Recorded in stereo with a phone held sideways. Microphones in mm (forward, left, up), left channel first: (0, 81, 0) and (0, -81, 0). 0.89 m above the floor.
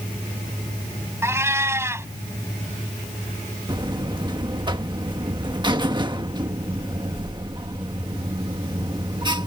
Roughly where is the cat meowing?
Centre.